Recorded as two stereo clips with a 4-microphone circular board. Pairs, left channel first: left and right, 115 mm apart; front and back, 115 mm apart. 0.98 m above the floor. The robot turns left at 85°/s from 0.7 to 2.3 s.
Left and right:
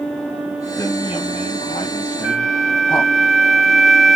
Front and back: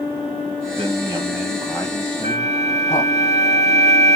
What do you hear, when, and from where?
0.8 s a man speaking: 165° left, 1.1 m; by 3.1 s 35° left, 1.1 m
2.2 s a flute: straight behind, 1.1 m; by 4.2 s 175° left, 1.1 m